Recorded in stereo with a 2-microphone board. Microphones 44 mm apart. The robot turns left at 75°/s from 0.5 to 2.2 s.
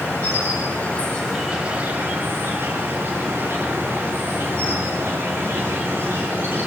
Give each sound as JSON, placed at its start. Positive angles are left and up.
{"t": 0.0, "sound": "an insect", "azimuth_deg": 60, "distance_m": 7.5}